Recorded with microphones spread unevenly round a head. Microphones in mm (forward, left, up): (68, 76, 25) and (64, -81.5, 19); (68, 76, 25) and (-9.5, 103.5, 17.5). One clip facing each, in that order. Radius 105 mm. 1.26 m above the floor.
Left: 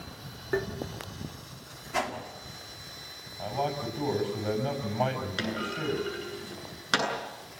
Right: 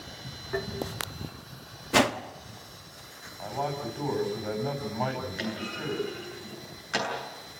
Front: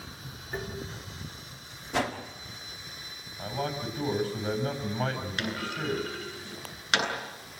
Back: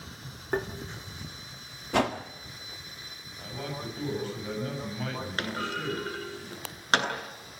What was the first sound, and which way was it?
Tapping, 140° left.